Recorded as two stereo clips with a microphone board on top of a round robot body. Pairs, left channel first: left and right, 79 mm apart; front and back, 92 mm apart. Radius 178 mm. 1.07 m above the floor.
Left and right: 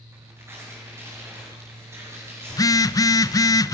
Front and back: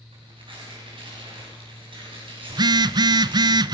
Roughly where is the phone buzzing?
Behind left.